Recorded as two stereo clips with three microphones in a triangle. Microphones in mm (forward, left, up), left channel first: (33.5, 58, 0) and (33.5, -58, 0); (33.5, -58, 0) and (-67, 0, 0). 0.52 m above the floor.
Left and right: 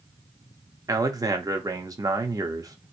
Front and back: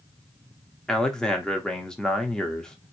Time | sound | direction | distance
0.9 | a man speaking | 110° right | 0.9 m